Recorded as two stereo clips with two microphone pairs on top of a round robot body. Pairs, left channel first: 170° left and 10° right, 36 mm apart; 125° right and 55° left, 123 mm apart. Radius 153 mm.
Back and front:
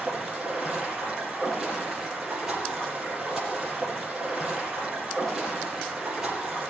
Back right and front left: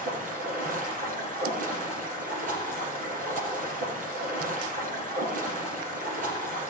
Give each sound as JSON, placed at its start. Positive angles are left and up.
{"t": 0.0, "sound": "running water", "azimuth_deg": 70, "distance_m": 5.0}